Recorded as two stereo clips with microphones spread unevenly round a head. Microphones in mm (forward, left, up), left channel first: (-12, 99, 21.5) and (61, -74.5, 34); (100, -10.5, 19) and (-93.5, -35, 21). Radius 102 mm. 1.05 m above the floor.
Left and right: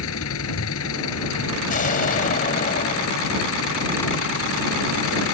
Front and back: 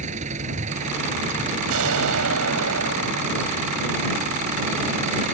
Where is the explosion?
165° left.